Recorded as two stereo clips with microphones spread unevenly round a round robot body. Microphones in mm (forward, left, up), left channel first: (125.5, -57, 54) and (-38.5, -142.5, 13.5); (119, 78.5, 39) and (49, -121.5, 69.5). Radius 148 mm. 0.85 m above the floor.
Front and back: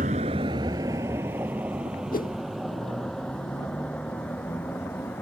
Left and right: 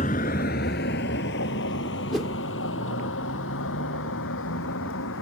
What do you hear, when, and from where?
0.0 s a vehicle: 140° left; by 5.2 s 110° left
2.1 s a whoosh: 20° right